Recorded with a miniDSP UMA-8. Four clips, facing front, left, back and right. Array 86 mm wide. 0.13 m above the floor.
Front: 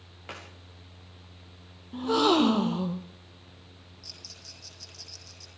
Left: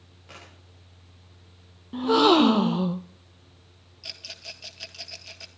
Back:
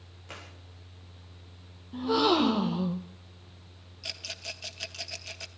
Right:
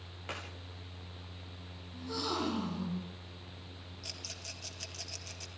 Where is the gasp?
80° left, 1.0 m.